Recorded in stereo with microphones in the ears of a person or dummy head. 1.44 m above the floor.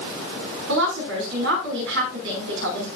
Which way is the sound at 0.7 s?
70° right (ahead or behind).